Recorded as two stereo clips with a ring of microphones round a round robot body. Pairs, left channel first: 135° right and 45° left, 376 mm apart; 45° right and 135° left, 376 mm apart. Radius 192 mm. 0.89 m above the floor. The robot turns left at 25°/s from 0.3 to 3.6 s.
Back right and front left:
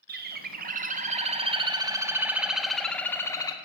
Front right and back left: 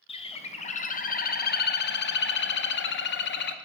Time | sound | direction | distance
0.1 | a bird | 15° left | 0.5 m